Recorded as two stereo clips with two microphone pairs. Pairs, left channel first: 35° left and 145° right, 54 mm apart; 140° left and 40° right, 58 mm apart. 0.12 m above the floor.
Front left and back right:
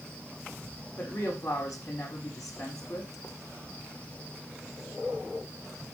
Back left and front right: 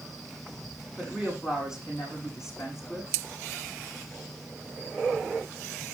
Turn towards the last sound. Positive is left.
turn(degrees=45)